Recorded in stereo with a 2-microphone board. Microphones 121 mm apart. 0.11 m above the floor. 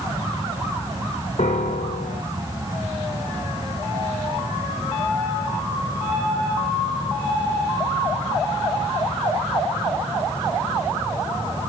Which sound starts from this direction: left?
A piano, at 1.4 s.